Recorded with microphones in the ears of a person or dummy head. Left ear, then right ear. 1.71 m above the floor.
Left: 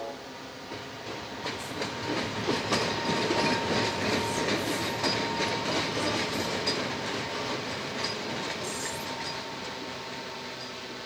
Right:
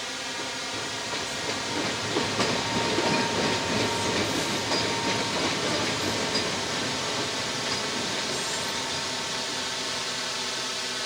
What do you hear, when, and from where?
0.0 s a drone: 60° right (ahead or behind); by 11.1 s 65° right (ahead or behind)